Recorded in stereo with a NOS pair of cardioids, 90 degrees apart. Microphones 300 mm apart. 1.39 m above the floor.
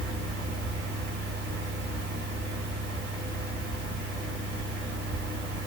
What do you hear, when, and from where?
0.0 s a fan: 40° right, 1.9 m